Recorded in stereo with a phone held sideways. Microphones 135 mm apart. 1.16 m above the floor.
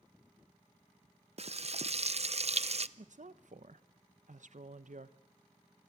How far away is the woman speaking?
About 0.9 m.